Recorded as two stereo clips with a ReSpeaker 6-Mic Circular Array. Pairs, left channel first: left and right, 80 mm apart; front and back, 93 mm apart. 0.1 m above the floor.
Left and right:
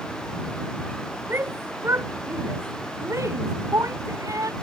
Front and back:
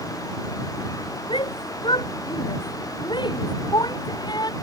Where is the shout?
30° right; by 4.5 s 45° right.